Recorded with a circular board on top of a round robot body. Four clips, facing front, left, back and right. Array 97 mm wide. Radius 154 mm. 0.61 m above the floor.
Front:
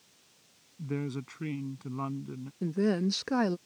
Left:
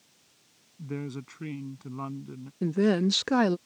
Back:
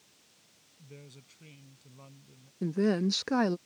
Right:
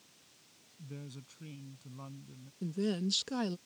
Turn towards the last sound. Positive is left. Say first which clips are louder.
# left 10 dB, back 1 dB
turn(degrees=95)